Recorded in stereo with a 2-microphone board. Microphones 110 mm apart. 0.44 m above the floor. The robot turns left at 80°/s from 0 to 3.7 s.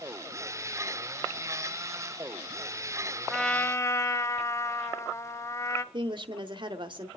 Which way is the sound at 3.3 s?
175° right.